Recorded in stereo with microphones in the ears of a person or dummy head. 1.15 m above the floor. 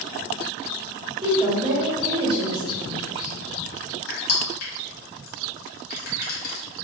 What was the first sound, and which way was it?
A woman speaking, 25° right (ahead or behind).